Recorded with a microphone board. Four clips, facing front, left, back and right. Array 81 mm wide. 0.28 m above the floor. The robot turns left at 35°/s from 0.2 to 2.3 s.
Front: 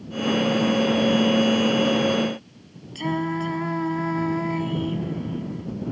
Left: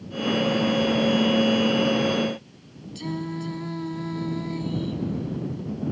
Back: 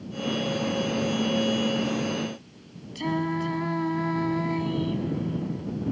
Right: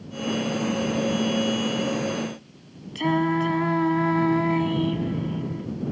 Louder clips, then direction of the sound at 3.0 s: Right 9 dB, front 2 dB; 80° right.